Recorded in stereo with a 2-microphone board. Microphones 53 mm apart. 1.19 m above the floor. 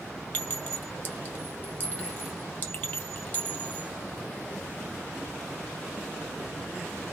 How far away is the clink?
About 1.8 m.